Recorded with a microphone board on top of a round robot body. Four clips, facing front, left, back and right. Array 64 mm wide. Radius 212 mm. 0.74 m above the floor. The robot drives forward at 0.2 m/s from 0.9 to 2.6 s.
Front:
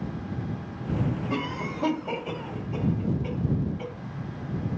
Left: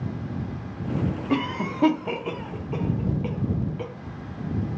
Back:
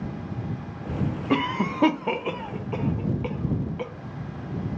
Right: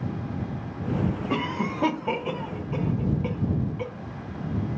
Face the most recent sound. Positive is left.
turn(degrees=180)